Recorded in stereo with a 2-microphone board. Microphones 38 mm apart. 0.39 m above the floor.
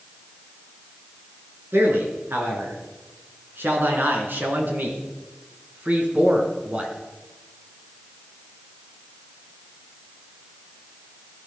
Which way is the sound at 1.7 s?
75° right (ahead or behind).